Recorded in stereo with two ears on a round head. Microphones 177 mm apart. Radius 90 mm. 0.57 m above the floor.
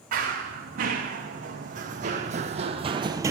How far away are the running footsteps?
About 2.5 m.